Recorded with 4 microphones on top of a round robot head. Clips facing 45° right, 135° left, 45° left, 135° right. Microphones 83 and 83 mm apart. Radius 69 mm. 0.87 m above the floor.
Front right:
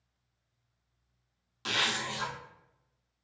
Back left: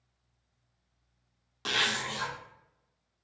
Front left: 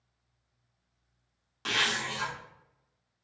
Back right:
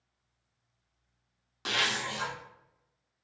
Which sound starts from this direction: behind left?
A zipper, at 1.6 s.